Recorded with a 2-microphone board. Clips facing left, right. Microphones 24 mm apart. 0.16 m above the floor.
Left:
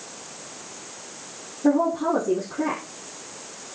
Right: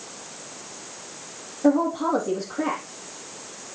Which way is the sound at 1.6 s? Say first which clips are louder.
Even; 75° right (ahead or behind).